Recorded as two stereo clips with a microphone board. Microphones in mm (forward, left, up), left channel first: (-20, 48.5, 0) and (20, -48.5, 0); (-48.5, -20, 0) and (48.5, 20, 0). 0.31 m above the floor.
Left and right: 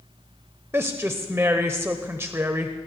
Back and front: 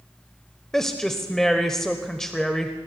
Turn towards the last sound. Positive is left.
turn(degrees=-80)